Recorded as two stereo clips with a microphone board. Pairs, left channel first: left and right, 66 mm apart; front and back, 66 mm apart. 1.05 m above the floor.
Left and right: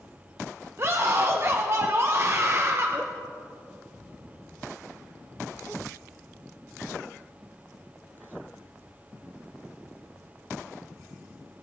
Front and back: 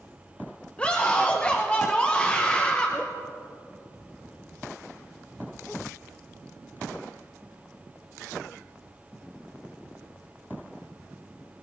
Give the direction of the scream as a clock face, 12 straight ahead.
2 o'clock.